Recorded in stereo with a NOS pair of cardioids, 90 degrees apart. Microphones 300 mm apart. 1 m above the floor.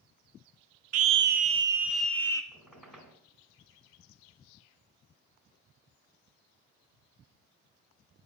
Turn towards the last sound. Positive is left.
turn(degrees=0)